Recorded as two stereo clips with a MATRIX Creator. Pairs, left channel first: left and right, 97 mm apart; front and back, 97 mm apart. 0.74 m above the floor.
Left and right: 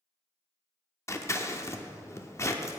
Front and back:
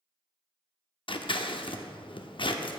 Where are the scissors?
30° left, 0.5 m.